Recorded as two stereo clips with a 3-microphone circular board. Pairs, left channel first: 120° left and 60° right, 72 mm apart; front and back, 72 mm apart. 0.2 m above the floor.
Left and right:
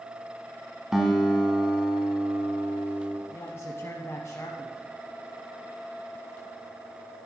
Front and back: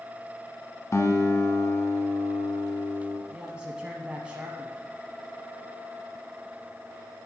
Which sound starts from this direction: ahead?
A guitar, at 0.9 s.